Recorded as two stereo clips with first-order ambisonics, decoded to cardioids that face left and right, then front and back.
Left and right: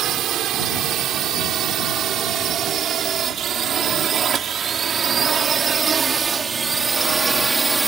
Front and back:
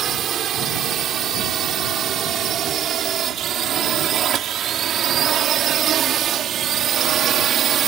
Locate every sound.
0.0 s a drone: 130° right; by 7.9 s 160° right